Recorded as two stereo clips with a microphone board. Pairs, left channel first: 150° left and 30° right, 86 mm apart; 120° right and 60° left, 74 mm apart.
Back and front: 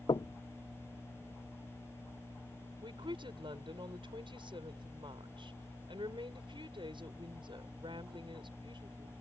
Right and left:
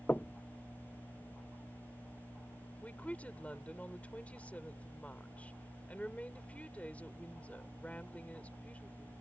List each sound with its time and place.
0.1 s knocking: 175° left
2.8 s a woman speaking: 50° right